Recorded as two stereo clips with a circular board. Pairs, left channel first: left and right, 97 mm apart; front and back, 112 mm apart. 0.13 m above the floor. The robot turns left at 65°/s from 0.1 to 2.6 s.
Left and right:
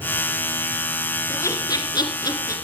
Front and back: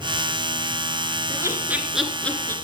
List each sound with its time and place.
1.3 s laughter: 140° left, 1.8 m; by 2.5 s 60° left, 1.8 m